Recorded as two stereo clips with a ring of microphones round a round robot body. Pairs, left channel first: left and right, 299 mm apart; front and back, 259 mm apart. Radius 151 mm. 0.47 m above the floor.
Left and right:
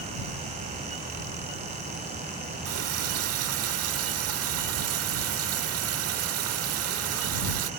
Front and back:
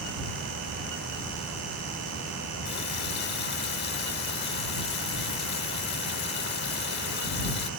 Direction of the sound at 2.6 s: 50° right.